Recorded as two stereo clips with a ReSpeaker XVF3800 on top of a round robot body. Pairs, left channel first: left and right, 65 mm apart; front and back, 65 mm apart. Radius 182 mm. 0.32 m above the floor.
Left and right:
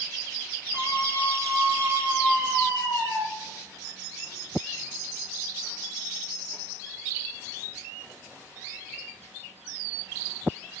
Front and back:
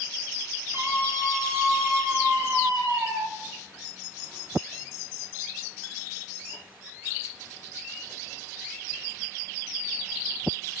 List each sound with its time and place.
0.7 s a scream: 135° right, 7.5 m